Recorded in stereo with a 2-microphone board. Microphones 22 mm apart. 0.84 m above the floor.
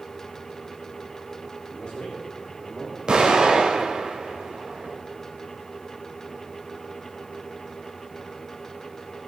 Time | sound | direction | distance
1.7 | a man speaking | 70° left (ahead or behind) | 1.9 m
3.1 | an explosion | 40° right (ahead or behind) | 2.5 m